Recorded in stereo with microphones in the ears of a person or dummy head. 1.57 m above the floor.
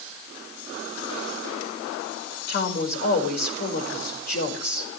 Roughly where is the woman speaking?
Left.